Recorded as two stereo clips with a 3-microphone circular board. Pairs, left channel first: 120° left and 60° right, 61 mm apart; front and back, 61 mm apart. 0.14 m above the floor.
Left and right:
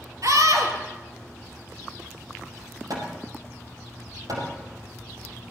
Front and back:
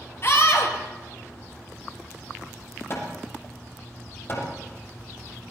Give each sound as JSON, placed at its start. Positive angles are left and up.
{"t": 0.2, "sound": "a scream", "azimuth_deg": -40, "distance_m": 3.5}
{"t": 2.9, "sound": "hammering", "azimuth_deg": -45, "distance_m": 4.5}